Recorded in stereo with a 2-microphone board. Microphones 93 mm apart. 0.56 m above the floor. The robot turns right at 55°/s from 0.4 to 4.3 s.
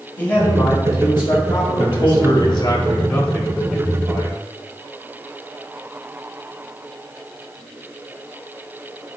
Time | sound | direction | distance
0.2 | a man speaking | 20° left | 2 m
1.8 | a man speaking | 85° left | 2.0 m